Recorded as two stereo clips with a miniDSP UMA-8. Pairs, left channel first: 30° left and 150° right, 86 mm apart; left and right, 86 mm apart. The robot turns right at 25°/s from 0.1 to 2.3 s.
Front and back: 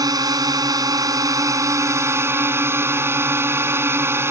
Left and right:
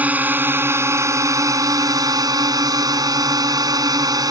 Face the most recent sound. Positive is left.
turn(degrees=-100)